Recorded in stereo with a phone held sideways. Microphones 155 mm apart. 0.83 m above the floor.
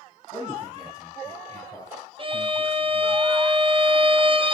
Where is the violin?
35° right (ahead or behind), 0.7 m.